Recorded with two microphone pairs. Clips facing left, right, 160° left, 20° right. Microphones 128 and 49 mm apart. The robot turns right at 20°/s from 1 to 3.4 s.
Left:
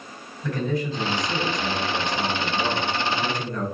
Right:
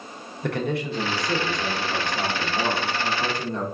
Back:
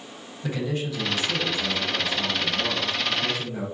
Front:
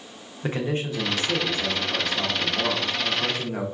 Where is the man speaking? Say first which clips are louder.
Even, front 2 dB; 75° right, 0.7 m; by 3.6 s 25° right, 0.7 m.